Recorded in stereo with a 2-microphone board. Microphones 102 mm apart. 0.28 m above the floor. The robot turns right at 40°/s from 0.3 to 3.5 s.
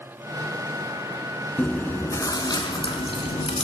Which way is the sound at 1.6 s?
10° left.